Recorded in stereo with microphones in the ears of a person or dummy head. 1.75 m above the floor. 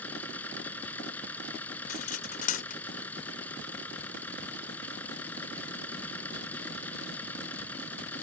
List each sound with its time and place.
0.0 s a machine running: 15° left (ahead or behind)
1.9 s cutlery clinking: 45° left (ahead or behind)